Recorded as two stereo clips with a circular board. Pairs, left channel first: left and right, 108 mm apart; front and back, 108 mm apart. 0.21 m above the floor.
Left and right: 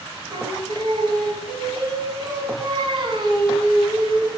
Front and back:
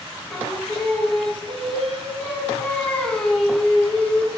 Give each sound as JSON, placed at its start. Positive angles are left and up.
{"t": 0.3, "sound": "singing", "azimuth_deg": -75, "distance_m": 1.5}